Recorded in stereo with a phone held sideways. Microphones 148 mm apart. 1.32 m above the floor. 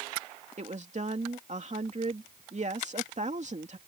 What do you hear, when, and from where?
0.6 s a woman speaking: 50° right (ahead or behind)